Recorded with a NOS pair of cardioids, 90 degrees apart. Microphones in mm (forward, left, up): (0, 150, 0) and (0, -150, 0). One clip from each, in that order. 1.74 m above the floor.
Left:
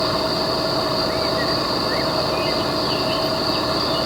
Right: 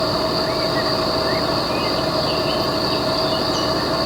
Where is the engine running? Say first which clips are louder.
Right 1 dB; 10° right.